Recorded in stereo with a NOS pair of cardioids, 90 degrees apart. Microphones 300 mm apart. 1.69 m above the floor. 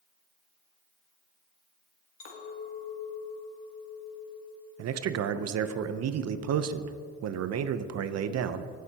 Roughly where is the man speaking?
Ahead right.